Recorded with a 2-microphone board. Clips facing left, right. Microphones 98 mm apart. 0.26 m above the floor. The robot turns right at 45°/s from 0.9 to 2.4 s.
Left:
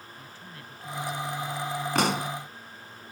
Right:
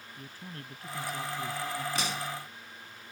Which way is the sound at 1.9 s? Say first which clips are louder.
Left 8 dB; 65° left (ahead or behind).